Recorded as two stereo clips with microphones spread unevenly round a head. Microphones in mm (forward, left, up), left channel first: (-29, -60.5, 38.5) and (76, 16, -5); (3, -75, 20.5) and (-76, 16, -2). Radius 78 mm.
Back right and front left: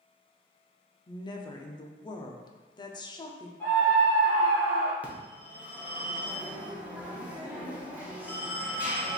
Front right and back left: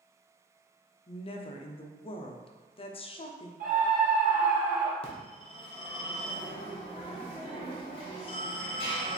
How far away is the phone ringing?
About 0.9 m.